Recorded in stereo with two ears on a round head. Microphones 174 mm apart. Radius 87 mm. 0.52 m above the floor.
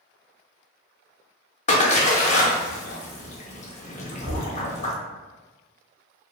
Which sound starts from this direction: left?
A splash, at 1.7 s.